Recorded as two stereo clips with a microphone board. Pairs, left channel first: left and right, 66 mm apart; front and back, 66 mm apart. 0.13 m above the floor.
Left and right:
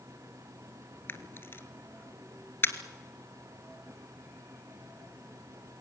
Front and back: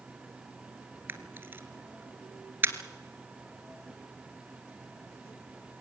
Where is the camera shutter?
130° left, 1.3 m.